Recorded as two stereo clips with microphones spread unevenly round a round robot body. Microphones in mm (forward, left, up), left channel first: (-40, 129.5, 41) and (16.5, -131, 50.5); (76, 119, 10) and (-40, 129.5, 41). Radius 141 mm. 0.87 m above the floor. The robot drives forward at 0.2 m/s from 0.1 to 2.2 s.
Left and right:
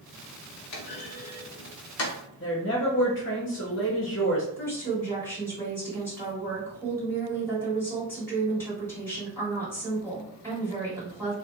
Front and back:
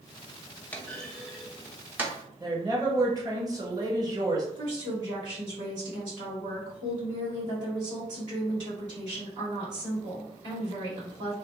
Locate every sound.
0.7 s a clunk: 85° left, 0.6 m; by 2.1 s 120° left, 0.6 m
2.4 s a woman speaking: 110° left, 1.1 m
4.6 s a woman speaking: straight behind, 1.7 m